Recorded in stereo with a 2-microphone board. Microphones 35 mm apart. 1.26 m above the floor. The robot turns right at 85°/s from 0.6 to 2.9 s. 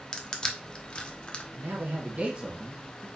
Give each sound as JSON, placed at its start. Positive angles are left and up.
{"t": 0.1, "sound": "crushing", "side_deg": 20, "distance_m": 0.8}
{"t": 1.5, "sound": "a man speaking", "azimuth_deg": -100, "distance_m": 1.2}